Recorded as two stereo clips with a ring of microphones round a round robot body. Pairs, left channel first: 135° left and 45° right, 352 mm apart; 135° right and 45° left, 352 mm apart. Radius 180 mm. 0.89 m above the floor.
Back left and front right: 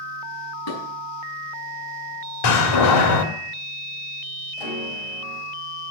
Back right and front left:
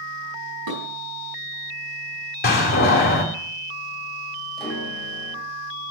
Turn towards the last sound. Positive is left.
turn(degrees=135)